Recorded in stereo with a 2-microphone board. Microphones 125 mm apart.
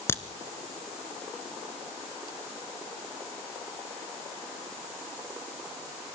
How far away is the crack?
About 1.1 m.